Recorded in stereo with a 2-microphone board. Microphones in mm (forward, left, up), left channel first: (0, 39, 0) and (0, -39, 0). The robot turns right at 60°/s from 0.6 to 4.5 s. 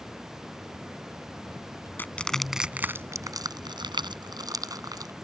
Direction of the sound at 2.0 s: 25° left (ahead or behind).